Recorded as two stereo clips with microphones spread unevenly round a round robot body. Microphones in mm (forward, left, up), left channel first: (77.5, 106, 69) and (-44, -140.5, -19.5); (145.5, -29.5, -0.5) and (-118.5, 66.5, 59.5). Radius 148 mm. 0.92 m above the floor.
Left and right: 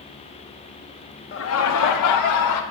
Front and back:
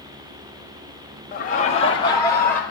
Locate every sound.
1.3 s laughter: 5° left, 0.7 m; by 2.6 s 60° left, 1.1 m